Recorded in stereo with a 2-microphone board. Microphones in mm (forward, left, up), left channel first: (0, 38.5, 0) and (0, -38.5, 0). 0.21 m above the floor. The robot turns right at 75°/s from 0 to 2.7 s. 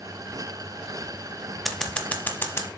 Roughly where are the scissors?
Centre.